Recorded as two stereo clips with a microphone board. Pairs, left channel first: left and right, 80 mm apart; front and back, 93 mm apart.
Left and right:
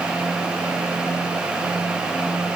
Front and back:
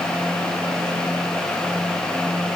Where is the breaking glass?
No breaking glass in this recording.